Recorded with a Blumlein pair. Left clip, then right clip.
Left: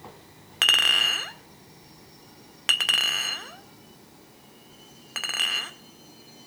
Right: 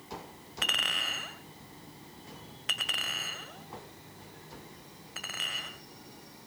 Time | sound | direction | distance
0.6 | a clink | 55° left | 1.6 m